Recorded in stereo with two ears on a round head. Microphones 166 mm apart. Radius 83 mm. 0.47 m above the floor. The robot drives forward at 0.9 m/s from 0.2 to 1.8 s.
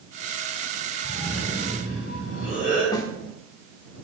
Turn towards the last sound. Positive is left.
turn(degrees=20)  # may be behind; listen again after turning